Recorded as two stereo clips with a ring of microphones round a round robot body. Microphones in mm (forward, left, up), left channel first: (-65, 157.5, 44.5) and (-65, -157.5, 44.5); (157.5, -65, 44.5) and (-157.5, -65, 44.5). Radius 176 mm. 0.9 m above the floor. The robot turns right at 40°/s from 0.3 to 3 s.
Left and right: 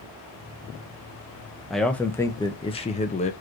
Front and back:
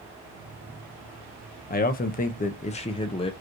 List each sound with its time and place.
1.7 s a man speaking: straight ahead, 0.8 m; by 3.3 s 50° left, 0.8 m